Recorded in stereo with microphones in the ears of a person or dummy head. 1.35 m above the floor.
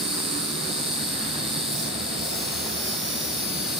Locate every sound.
0.0 s an insect: centre (ahead or behind), 2 m